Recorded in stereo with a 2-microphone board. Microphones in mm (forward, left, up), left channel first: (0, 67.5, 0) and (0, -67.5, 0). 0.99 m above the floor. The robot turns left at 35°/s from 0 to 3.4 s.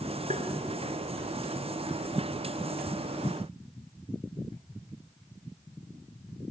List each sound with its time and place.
0.3 s tapping: 65° right (ahead or behind), 2.5 m; by 0.5 s 60° right (ahead or behind), 2.5 m